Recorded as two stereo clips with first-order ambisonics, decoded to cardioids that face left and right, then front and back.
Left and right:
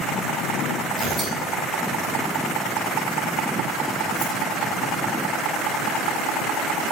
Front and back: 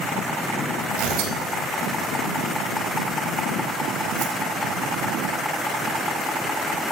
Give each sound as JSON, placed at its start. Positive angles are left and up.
{"t": 1.0, "sound": "tearing paper", "azimuth_deg": -175, "distance_m": 4.0}